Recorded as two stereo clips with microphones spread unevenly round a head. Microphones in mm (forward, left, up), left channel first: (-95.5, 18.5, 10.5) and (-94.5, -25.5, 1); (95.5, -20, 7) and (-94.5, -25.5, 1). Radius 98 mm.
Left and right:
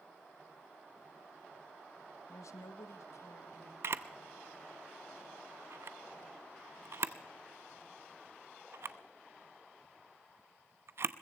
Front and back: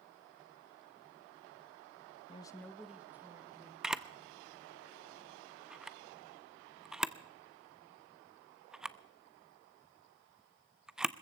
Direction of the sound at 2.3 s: 60° left.